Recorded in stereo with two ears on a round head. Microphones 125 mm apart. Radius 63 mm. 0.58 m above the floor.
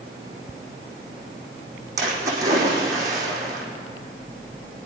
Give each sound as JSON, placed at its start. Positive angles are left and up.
{"t": 2.0, "sound": "a splash", "side_deg": -20, "distance_m": 4.5}